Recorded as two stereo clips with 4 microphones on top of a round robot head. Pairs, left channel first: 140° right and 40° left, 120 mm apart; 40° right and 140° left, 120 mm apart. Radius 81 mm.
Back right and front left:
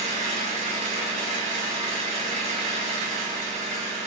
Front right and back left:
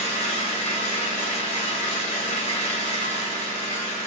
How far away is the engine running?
About 0.7 m.